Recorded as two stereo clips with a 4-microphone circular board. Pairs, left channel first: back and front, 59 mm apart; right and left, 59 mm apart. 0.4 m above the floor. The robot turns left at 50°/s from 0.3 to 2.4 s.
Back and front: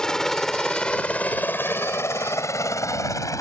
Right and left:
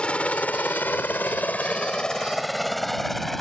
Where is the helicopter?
125° right; by 3.4 s 175° right.